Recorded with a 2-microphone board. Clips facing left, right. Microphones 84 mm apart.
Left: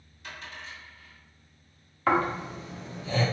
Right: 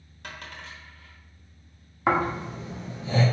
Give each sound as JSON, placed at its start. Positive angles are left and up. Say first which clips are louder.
{"t": 0.2, "sound": "a dropped coin", "louder": "right 1 dB", "side_deg": -65, "distance_m": 1.0}
{"t": 2.1, "sound": "snoring", "louder": "right 1 dB", "side_deg": -15, "distance_m": 1.1}